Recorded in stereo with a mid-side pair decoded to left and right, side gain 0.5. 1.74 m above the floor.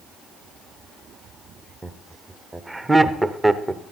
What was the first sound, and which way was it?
Laughter, 15° right.